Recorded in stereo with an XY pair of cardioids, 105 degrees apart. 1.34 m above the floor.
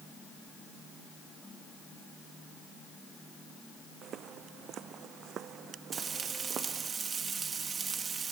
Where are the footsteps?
65° right; by 6.9 s 60° right.